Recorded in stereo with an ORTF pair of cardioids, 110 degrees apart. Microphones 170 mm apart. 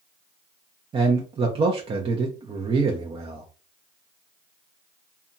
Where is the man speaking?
30° right, 0.6 m.